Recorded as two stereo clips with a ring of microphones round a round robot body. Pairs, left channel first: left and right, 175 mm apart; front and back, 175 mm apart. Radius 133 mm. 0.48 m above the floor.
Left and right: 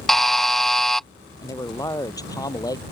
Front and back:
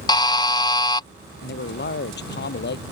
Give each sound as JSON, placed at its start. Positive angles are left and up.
{"t": 0.1, "sound": "a buzzer", "azimuth_deg": 5}
{"t": 1.4, "sound": "a man speaking", "azimuth_deg": 20}